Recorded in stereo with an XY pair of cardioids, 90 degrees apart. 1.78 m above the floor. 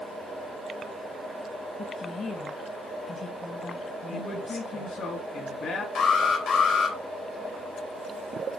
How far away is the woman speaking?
About 2.5 m.